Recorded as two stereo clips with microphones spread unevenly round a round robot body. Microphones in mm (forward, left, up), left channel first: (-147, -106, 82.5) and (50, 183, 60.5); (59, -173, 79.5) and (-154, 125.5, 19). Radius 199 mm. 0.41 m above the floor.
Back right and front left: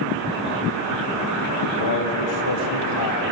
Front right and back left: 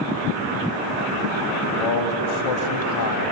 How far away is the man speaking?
About 3 m.